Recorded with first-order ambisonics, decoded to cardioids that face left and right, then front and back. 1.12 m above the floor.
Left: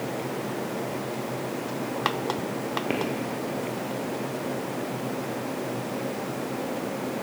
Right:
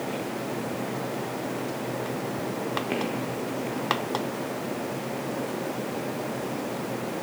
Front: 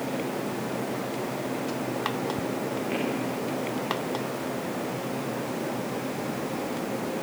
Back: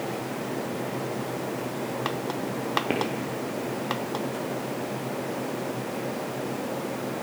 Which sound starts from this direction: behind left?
Footsteps, at 2.9 s.